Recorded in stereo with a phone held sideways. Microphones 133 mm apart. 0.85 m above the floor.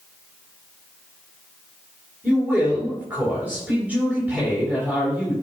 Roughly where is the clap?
I don't hear a clap.